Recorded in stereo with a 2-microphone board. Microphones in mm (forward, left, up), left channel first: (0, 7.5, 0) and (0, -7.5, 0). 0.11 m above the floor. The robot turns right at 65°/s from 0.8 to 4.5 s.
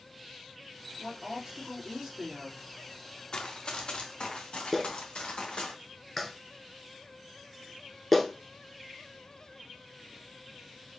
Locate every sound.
1.0 s a woman speaking: 175° right, 3.5 m; by 2.6 s 70° right, 3.5 m
3.3 s running footsteps: 50° left (ahead or behind), 1.4 m; by 5.7 s 80° left, 2.5 m
4.7 s a clap: 5° left (ahead or behind), 1.0 m